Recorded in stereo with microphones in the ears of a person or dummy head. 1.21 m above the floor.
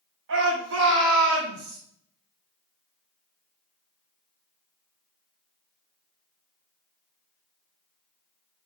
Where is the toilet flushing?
I don't hear a toilet flushing.